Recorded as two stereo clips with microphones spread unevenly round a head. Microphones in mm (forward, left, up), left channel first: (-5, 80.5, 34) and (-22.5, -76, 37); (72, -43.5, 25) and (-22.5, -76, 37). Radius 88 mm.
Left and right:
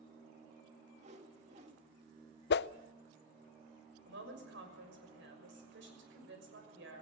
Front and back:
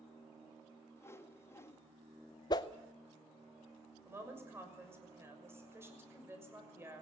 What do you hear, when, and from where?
1.0 s a whoosh: 45° right, 1.7 m
2.5 s a whoosh: 75° left, 0.5 m
4.0 s a woman speaking: 95° right, 6 m